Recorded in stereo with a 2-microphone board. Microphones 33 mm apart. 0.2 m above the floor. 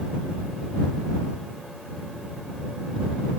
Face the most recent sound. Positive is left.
No sound to turn to.